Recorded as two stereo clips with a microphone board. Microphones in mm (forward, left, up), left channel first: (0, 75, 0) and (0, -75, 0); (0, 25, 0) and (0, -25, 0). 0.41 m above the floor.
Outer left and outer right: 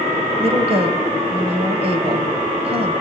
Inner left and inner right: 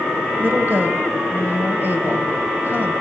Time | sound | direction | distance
0.4 | a woman speaking | 40° right (ahead or behind) | 1.8 m